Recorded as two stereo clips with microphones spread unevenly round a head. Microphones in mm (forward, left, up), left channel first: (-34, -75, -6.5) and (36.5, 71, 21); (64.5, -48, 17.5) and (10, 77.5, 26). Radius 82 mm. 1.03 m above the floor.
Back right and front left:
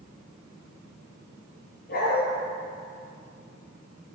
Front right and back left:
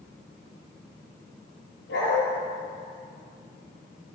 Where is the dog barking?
75° right, 5.5 m.